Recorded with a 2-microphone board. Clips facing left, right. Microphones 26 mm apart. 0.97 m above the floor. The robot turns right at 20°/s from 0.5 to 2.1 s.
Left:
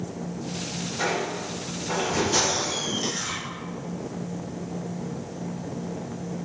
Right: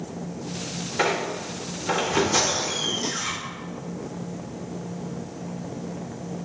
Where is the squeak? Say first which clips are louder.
Right 3 dB; 80° right, 0.5 m; by 3.3 s 75° right (ahead or behind), 0.5 m.